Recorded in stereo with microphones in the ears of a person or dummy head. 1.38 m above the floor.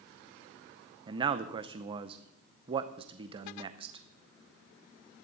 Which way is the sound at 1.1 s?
30° right (ahead or behind).